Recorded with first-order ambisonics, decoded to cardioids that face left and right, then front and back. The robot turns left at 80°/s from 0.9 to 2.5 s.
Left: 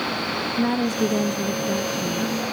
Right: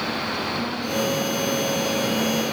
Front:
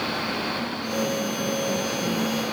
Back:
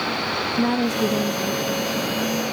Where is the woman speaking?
145° left; by 2.3 s 30° left.